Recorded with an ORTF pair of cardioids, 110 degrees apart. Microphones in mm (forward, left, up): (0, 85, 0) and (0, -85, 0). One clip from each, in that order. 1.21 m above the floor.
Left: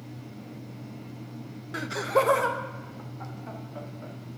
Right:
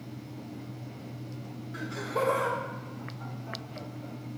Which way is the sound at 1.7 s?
45° left.